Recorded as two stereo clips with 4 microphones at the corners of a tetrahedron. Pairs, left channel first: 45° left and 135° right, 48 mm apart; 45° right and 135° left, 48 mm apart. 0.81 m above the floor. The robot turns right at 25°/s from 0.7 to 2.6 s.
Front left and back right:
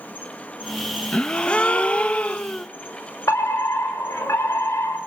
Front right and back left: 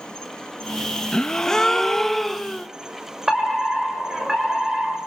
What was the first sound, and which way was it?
An insect, 15° left.